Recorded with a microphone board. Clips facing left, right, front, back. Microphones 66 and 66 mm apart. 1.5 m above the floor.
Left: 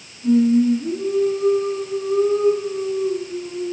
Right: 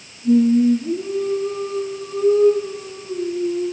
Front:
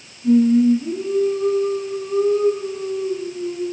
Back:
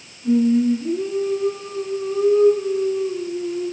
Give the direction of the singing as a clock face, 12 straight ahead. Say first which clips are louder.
Right 1 dB, front 3 dB; 9 o'clock.